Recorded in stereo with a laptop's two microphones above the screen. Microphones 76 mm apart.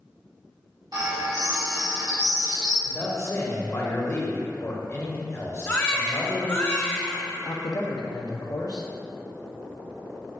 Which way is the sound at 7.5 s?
60° left (ahead or behind).